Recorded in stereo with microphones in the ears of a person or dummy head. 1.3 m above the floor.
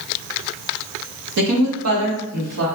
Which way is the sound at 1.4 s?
75° right (ahead or behind).